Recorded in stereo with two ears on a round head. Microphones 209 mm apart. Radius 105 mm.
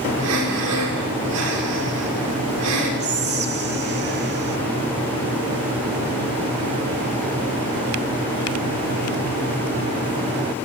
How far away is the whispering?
About 2 m.